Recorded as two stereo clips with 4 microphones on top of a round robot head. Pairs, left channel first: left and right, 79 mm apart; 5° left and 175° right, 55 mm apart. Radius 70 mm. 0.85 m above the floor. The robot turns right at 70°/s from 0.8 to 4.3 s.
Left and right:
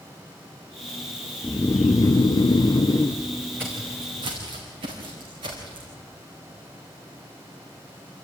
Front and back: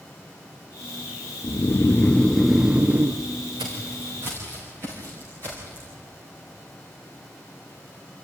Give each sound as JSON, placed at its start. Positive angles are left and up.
{"t": 1.4, "sound": "snoring", "azimuth_deg": 25, "distance_m": 0.7}
{"t": 3.6, "sound": "footsteps", "azimuth_deg": -165, "distance_m": 4.0}